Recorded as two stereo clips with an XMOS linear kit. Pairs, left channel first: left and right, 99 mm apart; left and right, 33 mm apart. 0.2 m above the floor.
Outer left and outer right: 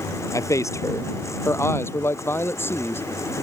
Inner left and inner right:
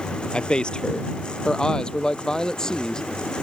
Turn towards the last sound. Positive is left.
turn(degrees=20)  # may be behind; listen again after turning